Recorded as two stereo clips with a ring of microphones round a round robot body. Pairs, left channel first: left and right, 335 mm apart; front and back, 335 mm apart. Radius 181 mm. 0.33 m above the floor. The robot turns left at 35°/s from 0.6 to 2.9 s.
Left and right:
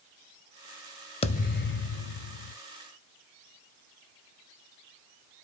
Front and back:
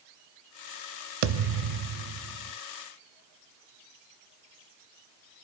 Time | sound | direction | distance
1.2 | a thud | 165° left | 0.6 m